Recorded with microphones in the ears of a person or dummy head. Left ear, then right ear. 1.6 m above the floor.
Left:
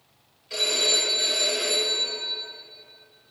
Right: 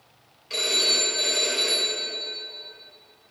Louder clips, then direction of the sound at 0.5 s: Even; 25° right (ahead or behind).